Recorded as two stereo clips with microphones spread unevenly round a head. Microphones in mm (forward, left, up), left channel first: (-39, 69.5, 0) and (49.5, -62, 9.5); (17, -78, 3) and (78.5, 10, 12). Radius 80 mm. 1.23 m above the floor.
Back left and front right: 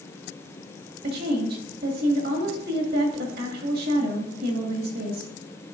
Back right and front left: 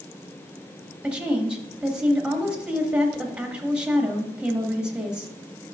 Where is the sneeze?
No sneeze in this recording.